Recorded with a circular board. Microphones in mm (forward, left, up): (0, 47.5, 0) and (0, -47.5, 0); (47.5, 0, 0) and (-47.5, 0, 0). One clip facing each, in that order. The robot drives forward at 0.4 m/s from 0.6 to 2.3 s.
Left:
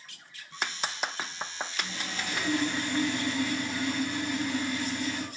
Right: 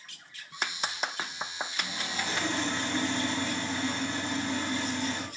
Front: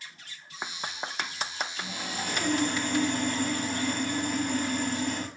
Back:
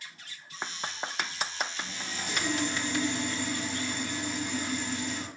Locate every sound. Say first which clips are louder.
1.8 s sawing: right 2 dB, front 3 dB; 30° right, 4.5 m; by 5.3 s 35° right, 4.5 m